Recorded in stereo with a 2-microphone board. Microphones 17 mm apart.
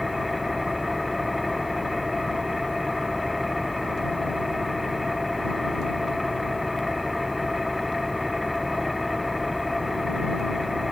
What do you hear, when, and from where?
0.0 s an engine running: 5° right (ahead or behind)